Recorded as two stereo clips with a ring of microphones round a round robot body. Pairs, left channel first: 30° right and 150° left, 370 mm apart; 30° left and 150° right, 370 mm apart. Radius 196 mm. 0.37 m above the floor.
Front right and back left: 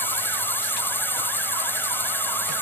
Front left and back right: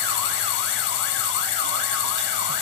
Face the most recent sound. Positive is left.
turn(degrees=55)